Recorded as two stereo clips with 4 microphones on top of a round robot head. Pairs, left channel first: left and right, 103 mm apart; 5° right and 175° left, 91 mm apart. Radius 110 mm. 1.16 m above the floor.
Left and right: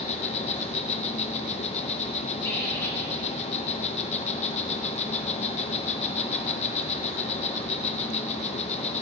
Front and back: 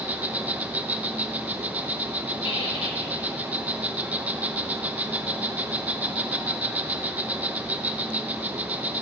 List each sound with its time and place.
0.0 s an insect: 105° left, 0.8 m
2.4 s a squeak: 25° left, 1.6 m